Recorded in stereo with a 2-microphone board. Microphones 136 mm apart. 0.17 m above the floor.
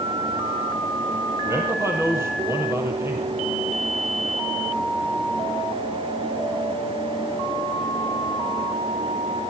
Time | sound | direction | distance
1.4 | a man speaking | 20° right (ahead or behind) | 5.5 m